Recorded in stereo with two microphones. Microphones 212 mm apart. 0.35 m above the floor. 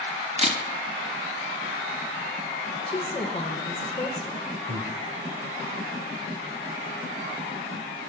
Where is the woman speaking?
25° left (ahead or behind), 1.3 m.